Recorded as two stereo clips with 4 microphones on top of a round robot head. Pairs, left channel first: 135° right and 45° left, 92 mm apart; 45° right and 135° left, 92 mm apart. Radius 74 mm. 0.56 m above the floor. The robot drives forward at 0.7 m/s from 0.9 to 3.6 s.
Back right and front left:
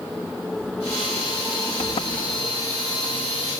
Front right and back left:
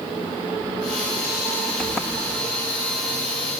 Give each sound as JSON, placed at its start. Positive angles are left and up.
{"t": 1.8, "sound": "a sliding door", "azimuth_deg": -135, "distance_m": 1.7}